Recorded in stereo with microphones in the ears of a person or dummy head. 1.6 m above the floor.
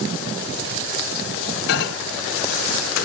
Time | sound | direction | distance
1.7 | a microwave | 60° left (ahead or behind) | ?